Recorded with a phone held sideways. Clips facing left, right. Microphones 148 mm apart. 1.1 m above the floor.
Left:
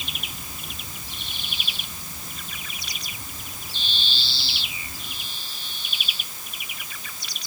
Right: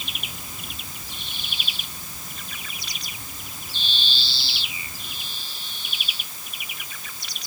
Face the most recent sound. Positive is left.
No sound to turn to.